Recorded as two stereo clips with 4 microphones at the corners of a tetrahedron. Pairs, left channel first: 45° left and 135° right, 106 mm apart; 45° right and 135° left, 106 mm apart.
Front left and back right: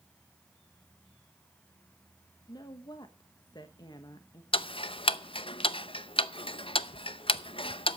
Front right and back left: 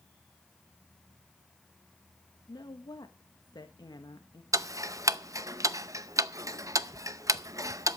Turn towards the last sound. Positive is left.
turn(degrees=75)